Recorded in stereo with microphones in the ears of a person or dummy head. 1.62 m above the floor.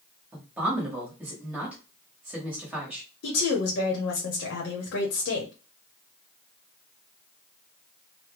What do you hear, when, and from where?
0.3 s a woman speaking: 15° right (ahead or behind), 1.3 m
3.2 s a woman speaking: 65° left (ahead or behind), 0.9 m